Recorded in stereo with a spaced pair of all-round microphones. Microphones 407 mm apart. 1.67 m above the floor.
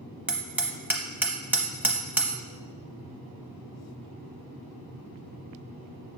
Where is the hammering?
5° right (ahead or behind), 0.9 m.